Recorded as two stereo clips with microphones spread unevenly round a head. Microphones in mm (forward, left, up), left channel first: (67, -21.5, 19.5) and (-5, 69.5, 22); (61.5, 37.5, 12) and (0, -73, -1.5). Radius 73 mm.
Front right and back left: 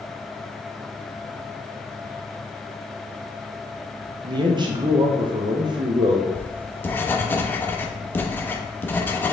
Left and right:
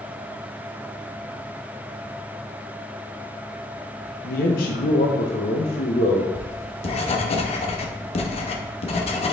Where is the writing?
20° left, 1.0 m.